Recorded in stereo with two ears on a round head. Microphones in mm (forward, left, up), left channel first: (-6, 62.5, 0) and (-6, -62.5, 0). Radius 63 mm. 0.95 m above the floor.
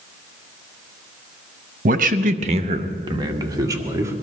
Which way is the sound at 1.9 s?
60° right (ahead or behind).